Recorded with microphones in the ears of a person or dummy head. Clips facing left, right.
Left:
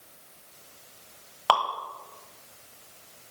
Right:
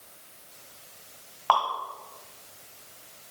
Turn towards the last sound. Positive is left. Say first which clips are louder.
# even
turn(degrees=45)  # may be behind; listen again after turning